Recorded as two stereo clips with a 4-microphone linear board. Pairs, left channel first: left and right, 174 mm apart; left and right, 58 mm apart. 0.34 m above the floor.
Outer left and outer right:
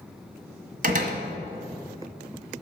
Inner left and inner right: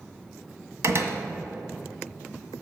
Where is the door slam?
55° right (ahead or behind), 1.5 m.